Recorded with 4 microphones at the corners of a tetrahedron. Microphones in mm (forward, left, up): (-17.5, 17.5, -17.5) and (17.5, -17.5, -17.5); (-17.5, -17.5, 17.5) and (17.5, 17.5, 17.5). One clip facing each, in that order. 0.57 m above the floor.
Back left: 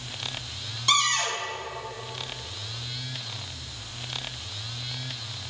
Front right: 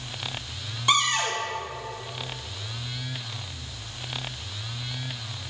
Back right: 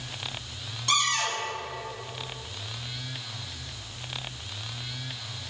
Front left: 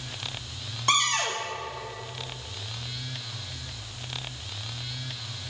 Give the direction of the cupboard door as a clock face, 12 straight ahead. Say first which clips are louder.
Front right 1 dB, front left 1 dB; 11 o'clock.